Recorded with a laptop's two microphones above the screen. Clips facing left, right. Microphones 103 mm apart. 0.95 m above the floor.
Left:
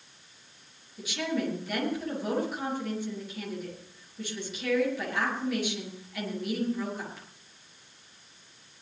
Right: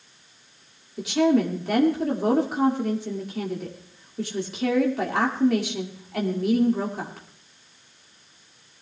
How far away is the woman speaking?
About 2.5 m.